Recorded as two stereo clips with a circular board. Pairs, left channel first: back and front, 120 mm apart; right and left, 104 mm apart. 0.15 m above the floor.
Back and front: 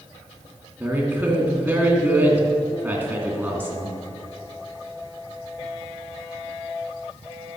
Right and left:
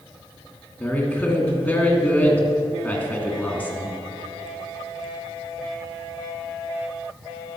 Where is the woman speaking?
45° right, 1.7 m.